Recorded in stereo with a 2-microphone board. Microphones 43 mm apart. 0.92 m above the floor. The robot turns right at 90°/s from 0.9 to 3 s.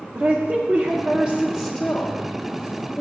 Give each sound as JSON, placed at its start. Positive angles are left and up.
{"t": 0.1, "sound": "a woman speaking", "side_deg": -40, "distance_m": 0.6}